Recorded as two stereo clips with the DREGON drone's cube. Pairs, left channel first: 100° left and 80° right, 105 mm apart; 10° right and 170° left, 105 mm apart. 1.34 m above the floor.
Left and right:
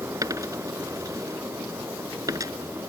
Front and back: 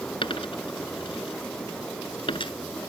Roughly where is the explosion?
No explosion in this recording.